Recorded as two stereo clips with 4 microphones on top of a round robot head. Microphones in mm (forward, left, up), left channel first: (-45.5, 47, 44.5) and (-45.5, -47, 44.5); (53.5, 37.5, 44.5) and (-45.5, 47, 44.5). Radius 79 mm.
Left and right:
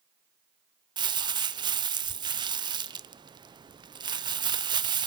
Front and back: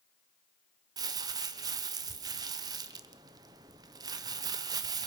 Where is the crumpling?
130° right, 0.8 m.